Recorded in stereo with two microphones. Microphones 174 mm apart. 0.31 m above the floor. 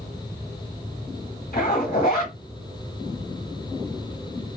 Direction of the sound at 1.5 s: 50° left (ahead or behind).